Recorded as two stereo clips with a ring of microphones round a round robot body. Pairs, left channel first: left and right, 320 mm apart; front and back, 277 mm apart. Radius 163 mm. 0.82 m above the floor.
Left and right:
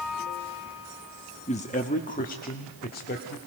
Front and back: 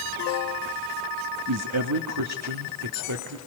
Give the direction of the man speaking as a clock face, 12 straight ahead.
7 o'clock.